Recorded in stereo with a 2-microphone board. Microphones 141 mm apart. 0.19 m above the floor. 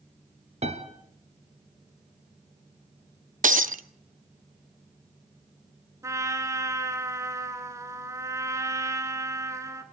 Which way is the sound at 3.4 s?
70° right (ahead or behind).